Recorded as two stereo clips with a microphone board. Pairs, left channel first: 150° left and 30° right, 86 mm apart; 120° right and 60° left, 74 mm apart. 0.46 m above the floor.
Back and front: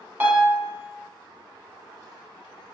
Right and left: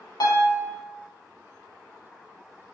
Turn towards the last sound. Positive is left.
turn(degrees=-95)